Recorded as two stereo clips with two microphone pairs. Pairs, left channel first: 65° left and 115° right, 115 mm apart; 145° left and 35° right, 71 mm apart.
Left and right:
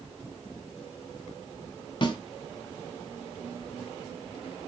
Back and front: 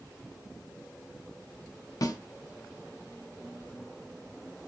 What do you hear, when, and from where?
2.0 s a snare drum: 110° left, 0.7 m